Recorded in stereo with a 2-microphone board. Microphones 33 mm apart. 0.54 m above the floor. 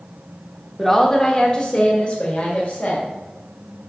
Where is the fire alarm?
I don't hear a fire alarm.